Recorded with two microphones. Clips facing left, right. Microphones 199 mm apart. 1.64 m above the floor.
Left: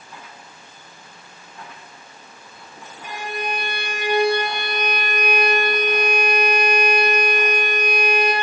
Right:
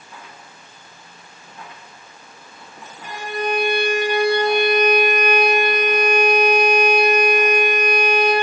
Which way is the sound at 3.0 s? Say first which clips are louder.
Right 4 dB; 15° left (ahead or behind).